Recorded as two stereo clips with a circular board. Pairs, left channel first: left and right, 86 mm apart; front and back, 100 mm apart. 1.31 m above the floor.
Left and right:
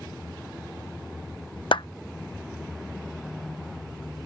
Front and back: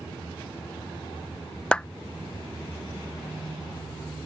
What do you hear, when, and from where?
1.7 s a clap: 80° left